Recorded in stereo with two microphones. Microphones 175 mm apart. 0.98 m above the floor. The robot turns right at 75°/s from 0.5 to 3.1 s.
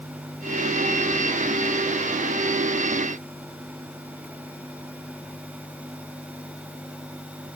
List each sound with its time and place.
Only background noise.